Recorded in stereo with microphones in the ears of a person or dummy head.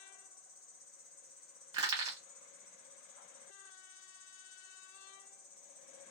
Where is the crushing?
25° right (ahead or behind), 0.9 m.